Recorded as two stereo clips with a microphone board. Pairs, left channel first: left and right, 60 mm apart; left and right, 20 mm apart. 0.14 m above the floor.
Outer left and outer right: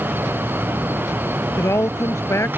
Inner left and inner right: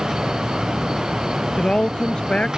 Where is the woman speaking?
50° left (ahead or behind).